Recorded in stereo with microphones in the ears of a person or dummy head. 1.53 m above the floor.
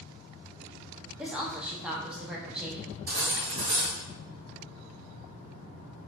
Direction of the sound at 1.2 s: 5° right (ahead or behind).